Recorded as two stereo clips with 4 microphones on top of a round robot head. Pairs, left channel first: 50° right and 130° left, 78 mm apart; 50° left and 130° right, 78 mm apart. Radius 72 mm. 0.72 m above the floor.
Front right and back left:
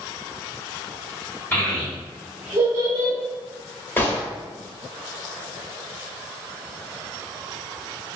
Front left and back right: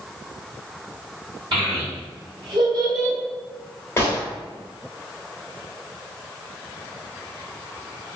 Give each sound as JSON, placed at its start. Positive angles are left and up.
{"t": 1.5, "sound": "a child speaking", "azimuth_deg": -115, "distance_m": 1.5}
{"t": 4.0, "sound": "a gunshot", "azimuth_deg": 5, "distance_m": 1.2}